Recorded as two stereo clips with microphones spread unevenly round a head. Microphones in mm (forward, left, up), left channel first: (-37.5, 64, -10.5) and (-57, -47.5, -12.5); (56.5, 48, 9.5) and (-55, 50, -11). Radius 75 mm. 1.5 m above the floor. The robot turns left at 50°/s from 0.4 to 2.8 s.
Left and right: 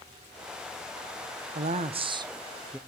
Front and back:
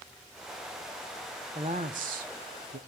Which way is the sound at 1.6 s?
120° right.